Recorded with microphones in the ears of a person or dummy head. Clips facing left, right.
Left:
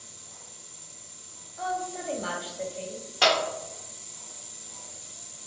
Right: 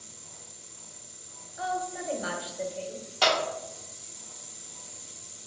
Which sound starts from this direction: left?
A clap, at 3.2 s.